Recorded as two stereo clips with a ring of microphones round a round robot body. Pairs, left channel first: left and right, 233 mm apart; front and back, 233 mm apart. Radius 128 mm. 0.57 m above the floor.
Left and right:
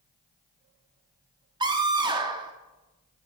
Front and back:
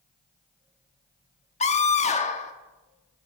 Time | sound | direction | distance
1.6 | a scream | 35° right | 0.8 m